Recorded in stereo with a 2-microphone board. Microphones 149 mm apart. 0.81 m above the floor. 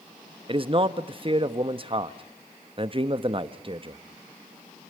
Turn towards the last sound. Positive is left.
turn(degrees=-35)  # may be behind; listen again after turning